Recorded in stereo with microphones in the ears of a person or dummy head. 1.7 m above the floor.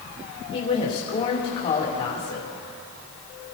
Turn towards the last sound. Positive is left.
turn(degrees=30)  # may be behind; listen again after turning